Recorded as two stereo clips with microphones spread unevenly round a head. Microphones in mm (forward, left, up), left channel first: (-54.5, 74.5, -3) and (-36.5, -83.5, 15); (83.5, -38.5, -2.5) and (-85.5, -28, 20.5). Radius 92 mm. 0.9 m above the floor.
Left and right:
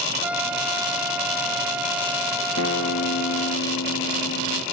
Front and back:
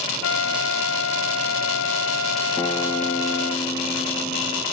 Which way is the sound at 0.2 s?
Straight ahead.